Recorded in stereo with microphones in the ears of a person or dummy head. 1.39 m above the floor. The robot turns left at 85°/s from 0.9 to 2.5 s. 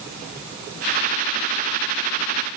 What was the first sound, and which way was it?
Only background noise.